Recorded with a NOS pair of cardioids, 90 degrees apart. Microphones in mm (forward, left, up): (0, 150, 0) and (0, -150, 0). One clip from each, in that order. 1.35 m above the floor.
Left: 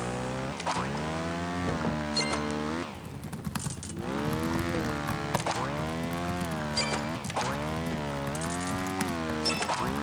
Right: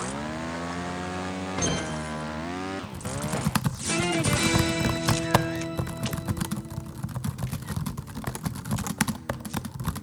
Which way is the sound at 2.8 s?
50° right.